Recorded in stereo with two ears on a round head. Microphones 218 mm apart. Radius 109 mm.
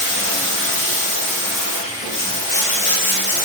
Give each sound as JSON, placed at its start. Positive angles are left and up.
{"t": 0.0, "sound": "running water", "side_deg": 30, "distance_m": 0.9}